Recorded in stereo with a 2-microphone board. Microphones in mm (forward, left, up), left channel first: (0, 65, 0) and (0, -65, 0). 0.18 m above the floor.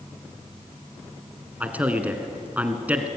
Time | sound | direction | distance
1.6 | a man speaking | 10° right (ahead or behind) | 1.7 m